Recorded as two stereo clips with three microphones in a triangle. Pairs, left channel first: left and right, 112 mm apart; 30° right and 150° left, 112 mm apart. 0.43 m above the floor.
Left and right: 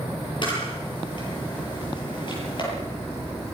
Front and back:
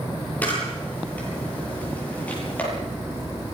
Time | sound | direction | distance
0.4 | a camera shutter | 45° left | 9 m